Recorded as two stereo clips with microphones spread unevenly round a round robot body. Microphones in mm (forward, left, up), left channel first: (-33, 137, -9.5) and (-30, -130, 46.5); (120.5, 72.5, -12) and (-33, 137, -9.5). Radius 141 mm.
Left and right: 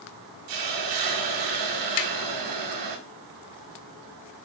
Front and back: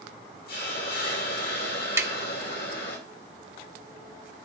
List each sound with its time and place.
0.5 s a hiss: 75° right, 2 m
2.0 s tapping: 85° left, 1.5 m